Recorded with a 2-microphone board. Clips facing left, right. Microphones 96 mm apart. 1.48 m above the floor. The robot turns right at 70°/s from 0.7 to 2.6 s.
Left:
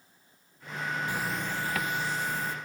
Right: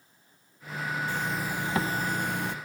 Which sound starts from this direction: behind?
A zipper, at 1.1 s.